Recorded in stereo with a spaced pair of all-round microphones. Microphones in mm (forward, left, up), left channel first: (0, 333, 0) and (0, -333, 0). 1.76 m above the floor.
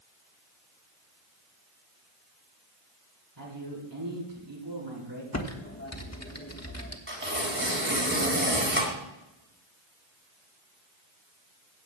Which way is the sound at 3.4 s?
40° right (ahead or behind).